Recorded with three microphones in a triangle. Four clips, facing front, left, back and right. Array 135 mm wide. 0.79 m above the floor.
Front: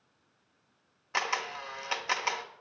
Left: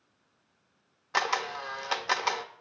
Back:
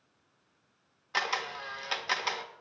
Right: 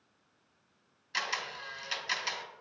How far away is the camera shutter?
About 0.6 m.